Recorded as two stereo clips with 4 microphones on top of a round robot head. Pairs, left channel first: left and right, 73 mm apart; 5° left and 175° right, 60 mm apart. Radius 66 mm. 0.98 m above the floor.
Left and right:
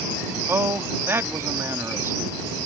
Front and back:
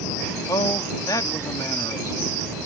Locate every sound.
0.5 s a man speaking: 35° right